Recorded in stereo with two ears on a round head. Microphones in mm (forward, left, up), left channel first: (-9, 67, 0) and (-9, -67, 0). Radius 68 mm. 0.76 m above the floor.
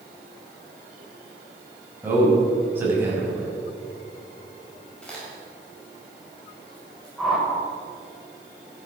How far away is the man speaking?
About 6 m.